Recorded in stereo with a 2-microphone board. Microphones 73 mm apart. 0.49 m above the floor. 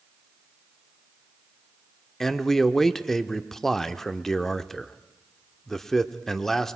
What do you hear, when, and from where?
2.2 s a man speaking: 5° left (ahead or behind), 0.8 m